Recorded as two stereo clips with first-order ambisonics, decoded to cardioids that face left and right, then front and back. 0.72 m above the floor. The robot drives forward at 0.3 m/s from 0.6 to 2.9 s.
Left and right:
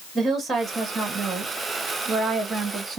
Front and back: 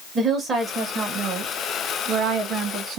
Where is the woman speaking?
155° right, 1.1 m; by 3.0 s 170° right, 1.5 m.